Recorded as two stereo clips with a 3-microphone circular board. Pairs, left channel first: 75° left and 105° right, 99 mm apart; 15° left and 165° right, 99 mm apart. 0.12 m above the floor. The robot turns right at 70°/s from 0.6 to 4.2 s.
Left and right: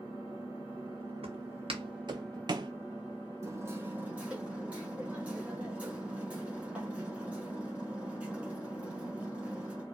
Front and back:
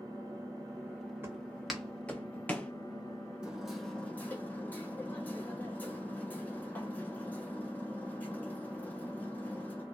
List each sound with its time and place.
0.0 s an engine running: 125° right, 1.7 m; by 9.9 s 130° left, 1.7 m
1.2 s footsteps: 105° right, 1.4 m; by 2.7 s 60° right, 0.5 m
3.4 s hammering: 95° right, 1.0 m; by 9.8 s 40° right, 1.0 m